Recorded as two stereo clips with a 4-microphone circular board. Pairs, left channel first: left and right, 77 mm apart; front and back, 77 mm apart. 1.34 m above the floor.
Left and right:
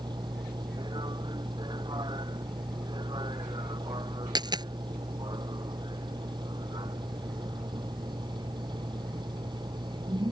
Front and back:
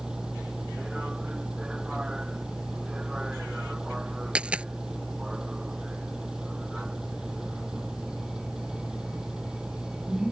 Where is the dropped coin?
105° right.